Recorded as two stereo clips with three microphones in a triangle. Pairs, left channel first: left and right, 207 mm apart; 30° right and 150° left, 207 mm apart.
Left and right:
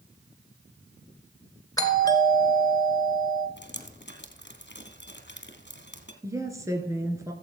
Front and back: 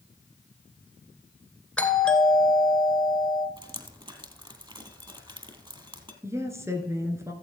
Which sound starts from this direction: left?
Dripping, at 3.6 s.